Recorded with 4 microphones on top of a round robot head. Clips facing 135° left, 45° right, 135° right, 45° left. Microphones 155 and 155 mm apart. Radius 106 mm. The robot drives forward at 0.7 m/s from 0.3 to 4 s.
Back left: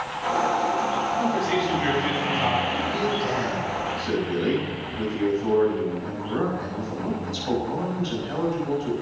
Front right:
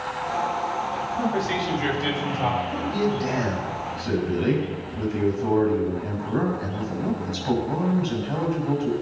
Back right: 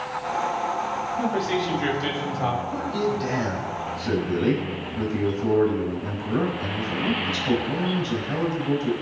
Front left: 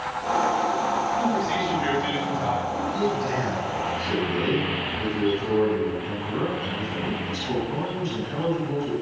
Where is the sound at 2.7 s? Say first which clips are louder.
Front right 1 dB, even; 115° right, 5.5 m; by 8.9 s 120° right, 5.5 m.